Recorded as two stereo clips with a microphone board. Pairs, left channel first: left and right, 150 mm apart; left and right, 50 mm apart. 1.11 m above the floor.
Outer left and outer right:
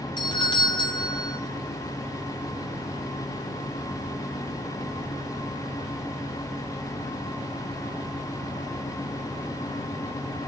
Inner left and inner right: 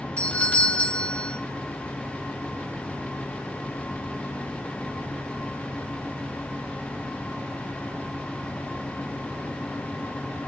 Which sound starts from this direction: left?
A doorbell, at 0.2 s.